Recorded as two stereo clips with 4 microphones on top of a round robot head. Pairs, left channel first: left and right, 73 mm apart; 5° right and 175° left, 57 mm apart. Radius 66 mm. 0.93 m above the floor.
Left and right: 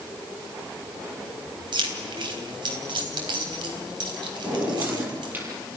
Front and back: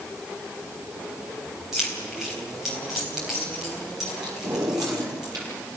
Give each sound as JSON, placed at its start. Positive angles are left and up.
{"t": 1.7, "sound": "keys jangling", "azimuth_deg": -100, "distance_m": 4.0}
{"t": 4.4, "sound": "a drawer", "azimuth_deg": -155, "distance_m": 7.0}